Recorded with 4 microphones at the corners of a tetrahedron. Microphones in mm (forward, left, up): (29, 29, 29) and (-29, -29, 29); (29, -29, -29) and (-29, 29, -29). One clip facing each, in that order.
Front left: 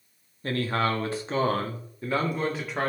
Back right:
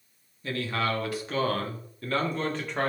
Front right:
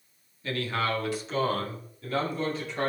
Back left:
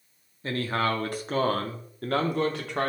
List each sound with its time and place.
0.4 s a man speaking: 85° left, 1.5 m; by 2.9 s 130° left, 2 m